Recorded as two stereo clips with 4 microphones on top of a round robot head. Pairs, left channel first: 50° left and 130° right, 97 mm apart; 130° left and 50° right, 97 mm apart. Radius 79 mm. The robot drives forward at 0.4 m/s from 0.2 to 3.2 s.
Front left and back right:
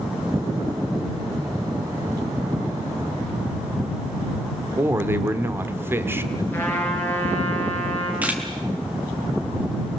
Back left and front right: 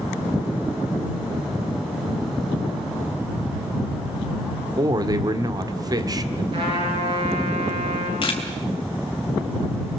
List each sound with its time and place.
4.8 s a man speaking: 75° right, 1.6 m
6.5 s a trumpet: 20° right, 5 m
8.2 s a camera shutter: 155° left, 3 m